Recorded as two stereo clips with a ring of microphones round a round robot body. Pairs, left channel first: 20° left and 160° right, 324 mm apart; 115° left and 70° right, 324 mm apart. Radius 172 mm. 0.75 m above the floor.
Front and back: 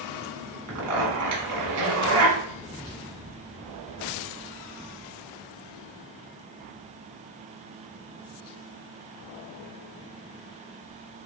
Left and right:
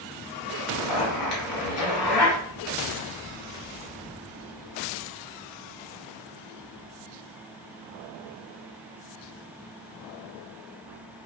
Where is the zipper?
160° left, 1.3 m.